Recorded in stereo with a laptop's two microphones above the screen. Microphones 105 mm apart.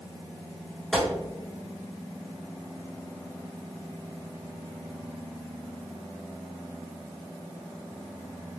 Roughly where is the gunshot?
Centre.